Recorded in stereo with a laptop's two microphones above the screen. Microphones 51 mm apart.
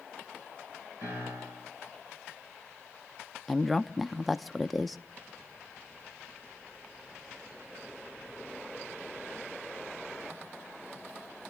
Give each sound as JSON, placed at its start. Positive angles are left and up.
{"t": 1.0, "sound": "a piano", "side_deg": -60, "distance_m": 7.0}
{"t": 3.5, "sound": "a woman speaking", "side_deg": 0, "distance_m": 0.6}